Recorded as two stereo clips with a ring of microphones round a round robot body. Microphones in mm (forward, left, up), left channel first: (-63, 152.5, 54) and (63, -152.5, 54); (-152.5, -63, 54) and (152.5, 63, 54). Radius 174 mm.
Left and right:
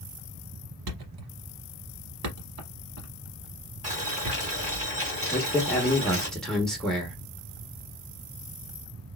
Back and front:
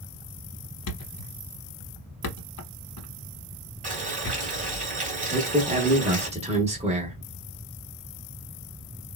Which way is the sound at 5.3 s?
30° left.